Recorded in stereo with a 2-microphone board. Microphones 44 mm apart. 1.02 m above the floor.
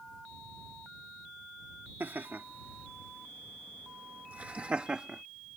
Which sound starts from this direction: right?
Laughter, at 2.0 s.